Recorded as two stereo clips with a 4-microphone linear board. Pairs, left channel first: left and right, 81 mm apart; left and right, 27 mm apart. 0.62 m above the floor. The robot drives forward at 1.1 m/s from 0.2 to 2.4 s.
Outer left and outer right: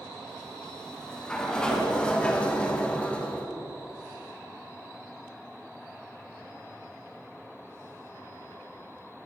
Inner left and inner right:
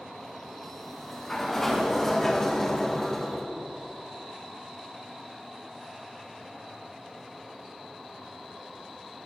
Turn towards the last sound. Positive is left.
turn(degrees=15)  # may be behind; listen again after turning